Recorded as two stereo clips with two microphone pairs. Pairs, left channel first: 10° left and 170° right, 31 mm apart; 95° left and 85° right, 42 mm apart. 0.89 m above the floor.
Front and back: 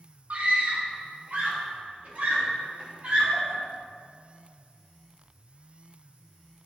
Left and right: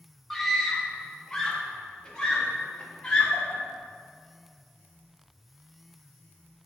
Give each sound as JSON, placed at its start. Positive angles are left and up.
{"t": 0.3, "sound": "a scream", "azimuth_deg": 180, "distance_m": 1.3}